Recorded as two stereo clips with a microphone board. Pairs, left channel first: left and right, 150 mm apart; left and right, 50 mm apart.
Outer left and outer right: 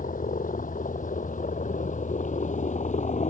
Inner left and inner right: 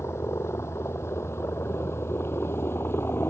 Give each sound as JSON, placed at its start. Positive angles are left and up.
{"t": 0.0, "sound": "a helicopter", "side_deg": 65}